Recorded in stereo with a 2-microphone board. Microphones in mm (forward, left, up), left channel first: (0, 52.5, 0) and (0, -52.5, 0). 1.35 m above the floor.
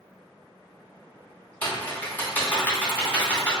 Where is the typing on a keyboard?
20° left (ahead or behind), 0.9 m.